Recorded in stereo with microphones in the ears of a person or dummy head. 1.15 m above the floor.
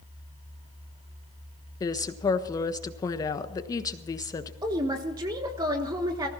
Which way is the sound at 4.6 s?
20° right (ahead or behind).